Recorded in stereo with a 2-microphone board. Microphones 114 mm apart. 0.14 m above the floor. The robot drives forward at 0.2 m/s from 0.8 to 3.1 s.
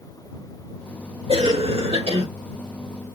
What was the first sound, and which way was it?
A cough, 60° right (ahead or behind).